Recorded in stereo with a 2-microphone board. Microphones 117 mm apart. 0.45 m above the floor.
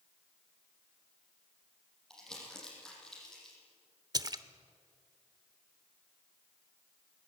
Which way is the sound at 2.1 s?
5° left (ahead or behind).